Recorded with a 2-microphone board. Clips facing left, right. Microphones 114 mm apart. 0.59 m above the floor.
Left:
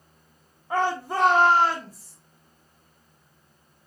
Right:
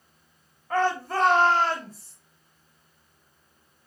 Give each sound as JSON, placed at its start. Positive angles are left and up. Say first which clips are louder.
{"t": 0.7, "sound": "a shout", "louder": "even", "side_deg": 15, "distance_m": 1.2}